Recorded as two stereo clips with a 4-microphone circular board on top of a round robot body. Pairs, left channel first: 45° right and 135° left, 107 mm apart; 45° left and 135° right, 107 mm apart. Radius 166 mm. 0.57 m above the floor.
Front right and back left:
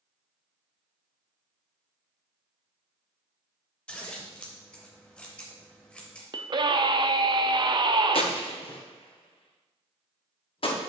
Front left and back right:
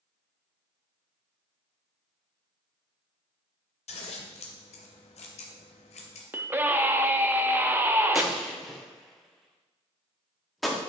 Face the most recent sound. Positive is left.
turn(degrees=-45)